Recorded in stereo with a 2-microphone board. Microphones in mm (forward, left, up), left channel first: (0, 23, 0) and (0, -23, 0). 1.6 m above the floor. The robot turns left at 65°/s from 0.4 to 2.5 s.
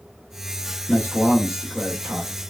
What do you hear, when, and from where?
0.9 s a man speaking: 45° left, 1.3 m; by 2.4 s 55° right, 1.3 m